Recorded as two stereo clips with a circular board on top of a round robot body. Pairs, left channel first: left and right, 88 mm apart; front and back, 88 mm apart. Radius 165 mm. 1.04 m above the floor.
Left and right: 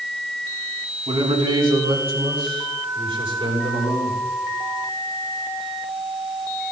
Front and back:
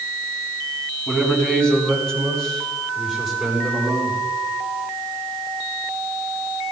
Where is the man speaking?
80° right, 4 m; by 4.2 s 90° right, 6.5 m.